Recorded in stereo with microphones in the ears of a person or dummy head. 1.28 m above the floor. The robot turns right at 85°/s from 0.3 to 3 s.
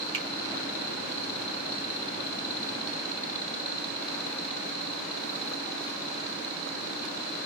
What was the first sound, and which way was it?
A finger snap, 35° right (ahead or behind).